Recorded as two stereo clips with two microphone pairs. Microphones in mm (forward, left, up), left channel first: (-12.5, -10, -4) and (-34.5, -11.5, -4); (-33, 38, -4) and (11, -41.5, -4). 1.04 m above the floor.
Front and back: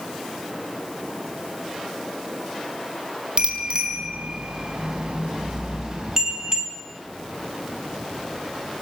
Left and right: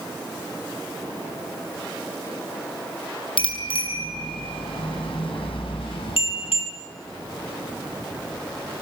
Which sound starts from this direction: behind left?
A bicycle bell, at 3.4 s.